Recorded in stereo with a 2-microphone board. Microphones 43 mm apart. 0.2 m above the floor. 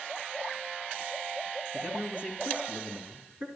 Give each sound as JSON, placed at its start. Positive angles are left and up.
{"t": 1.7, "sound": "a man speaking", "side_deg": -35, "distance_m": 2.5}